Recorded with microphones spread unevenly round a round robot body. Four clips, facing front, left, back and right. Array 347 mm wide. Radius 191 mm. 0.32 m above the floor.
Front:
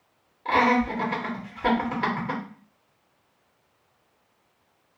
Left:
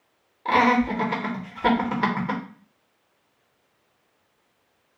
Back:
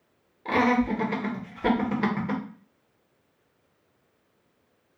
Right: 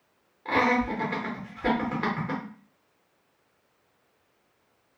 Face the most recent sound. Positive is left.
turn(degrees=120)